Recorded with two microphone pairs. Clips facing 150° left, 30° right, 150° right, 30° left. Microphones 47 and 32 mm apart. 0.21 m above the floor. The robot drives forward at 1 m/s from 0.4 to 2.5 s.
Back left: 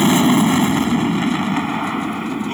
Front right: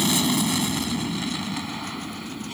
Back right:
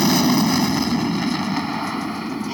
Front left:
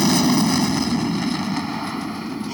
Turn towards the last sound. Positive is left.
turn(degrees=140)